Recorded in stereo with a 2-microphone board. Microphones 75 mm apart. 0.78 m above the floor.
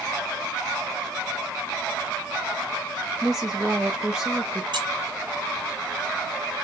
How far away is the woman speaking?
About 0.5 m.